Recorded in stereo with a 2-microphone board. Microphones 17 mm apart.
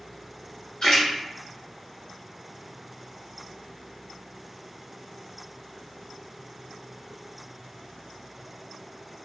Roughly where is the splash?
Left.